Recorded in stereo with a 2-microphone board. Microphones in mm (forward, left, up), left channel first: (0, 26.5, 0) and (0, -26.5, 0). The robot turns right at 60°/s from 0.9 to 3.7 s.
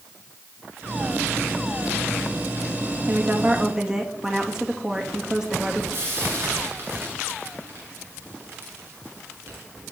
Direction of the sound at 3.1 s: 50° right.